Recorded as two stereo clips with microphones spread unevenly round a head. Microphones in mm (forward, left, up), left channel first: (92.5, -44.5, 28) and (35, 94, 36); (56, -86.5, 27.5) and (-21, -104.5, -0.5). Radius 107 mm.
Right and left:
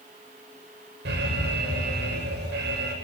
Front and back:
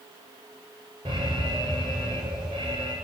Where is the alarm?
135° left, 8 m.